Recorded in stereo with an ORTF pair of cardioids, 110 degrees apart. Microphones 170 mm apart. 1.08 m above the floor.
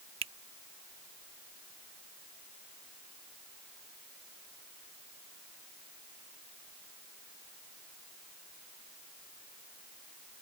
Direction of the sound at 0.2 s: 35° right.